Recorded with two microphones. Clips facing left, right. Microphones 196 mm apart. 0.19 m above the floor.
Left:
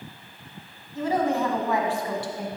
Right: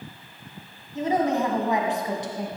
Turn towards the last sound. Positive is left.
turn(degrees=-20)  # may be behind; listen again after turning